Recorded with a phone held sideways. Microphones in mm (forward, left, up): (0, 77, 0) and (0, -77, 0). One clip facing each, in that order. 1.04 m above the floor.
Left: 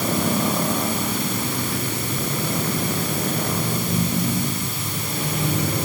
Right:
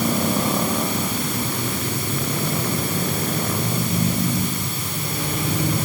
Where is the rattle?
No rattle in this recording.